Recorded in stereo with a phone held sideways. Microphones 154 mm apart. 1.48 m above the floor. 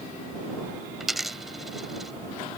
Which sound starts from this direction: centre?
A dropped coin, at 1.0 s.